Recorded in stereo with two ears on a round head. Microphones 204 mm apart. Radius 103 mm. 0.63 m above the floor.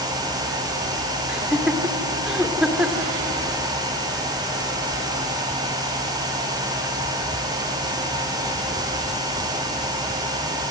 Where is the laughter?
5° right (ahead or behind), 1.9 m.